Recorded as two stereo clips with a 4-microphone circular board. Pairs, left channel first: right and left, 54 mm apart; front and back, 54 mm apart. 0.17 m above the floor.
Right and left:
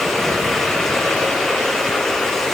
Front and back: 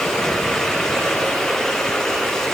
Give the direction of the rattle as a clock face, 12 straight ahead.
I don't hear a rattle.